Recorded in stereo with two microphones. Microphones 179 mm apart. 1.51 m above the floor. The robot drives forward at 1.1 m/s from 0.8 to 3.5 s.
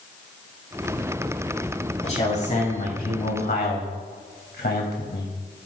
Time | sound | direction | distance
2.0 | a man speaking | 40° left (ahead or behind) | 3 m